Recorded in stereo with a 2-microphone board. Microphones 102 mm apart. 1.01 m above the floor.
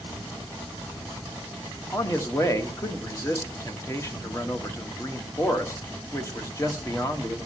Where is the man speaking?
30° left (ahead or behind), 1.1 m.